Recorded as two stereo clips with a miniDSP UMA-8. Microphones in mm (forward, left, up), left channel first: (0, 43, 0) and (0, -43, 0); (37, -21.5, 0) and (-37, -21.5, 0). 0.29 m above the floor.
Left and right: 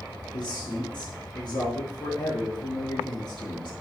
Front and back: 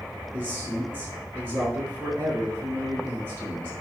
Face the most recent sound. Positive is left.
turn(degrees=120)